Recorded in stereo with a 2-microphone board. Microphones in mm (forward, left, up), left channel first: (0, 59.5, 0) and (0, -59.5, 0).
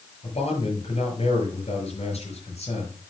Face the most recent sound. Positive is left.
turn(degrees=60)  # may be behind; listen again after turning